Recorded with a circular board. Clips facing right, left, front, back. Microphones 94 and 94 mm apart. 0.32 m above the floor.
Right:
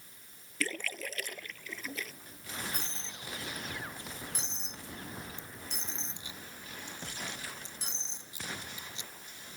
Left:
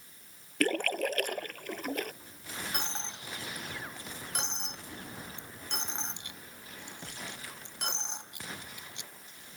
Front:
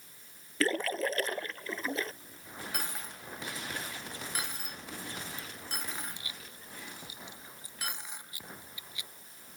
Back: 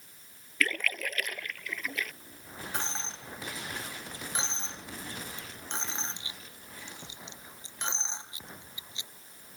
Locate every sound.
0.6 s a splash: 60° left
2.7 s a dropped coin: 115° left